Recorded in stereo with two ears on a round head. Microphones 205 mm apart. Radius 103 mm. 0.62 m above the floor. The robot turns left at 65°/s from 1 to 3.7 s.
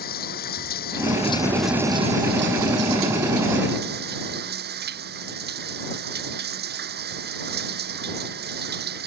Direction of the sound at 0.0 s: 40° left.